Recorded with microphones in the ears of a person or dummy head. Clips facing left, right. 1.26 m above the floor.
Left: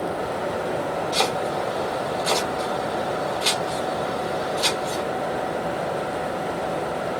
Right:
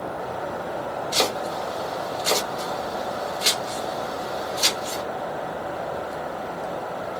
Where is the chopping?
40° right (ahead or behind), 1.7 m.